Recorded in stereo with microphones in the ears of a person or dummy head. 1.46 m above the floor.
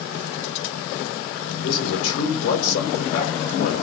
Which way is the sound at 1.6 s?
75° left (ahead or behind).